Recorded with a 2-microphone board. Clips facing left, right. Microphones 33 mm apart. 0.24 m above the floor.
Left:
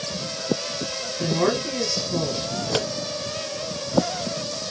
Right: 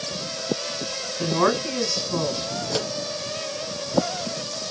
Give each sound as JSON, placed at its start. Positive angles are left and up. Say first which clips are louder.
{"t": 1.2, "sound": "a woman speaking", "louder": "right 1 dB", "side_deg": -50, "distance_m": 2.5}
{"t": 2.6, "sound": "scissors", "louder": "left 3 dB", "side_deg": 35, "distance_m": 1.0}